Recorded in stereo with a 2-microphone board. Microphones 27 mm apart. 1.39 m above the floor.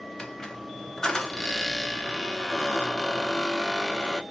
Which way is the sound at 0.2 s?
25° left (ahead or behind).